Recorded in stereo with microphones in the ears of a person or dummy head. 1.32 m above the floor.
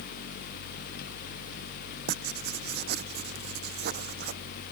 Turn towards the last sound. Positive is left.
turn(degrees=-50)  # may be behind; listen again after turning